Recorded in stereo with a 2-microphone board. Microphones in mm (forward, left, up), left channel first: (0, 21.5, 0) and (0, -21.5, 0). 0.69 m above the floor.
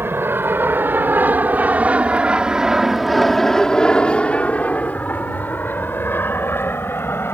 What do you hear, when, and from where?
0.0 s an aircraft: 60° right (ahead or behind); by 7.3 s 60° left (ahead or behind)